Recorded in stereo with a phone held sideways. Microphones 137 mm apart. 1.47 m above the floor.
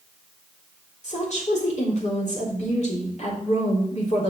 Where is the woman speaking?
55° left (ahead or behind), 3.5 m.